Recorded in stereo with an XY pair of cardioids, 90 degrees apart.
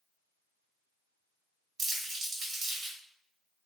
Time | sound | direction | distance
1.8 | crumpling | 70° right | 1.4 m